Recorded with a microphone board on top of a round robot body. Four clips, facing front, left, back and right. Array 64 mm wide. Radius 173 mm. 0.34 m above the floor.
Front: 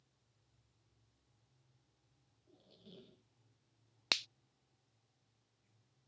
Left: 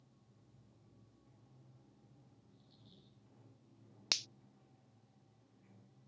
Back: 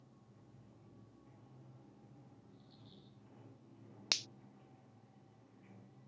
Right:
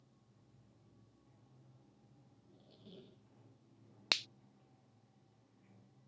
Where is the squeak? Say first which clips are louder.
Right 6 dB, back 1 dB; 60° right.